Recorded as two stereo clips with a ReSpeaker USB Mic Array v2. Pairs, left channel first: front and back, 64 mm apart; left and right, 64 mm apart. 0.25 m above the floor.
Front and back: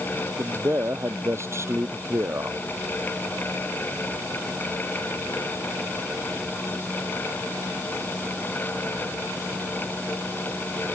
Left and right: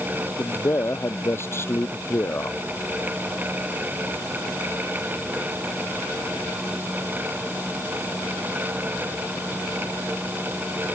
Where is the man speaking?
135° left.